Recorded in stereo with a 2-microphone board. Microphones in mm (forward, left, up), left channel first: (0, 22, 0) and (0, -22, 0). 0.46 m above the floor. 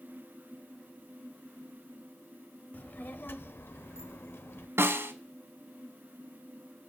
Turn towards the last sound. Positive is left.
turn(degrees=-75)  # may be behind; listen again after turning